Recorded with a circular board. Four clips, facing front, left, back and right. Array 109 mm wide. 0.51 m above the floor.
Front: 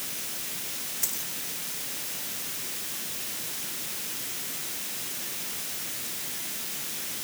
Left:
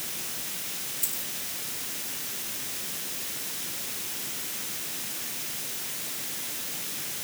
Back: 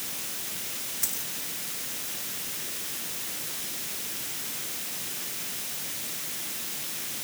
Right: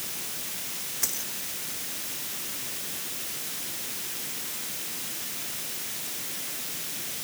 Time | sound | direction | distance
1.0 | a dropped coin | 90° right | ?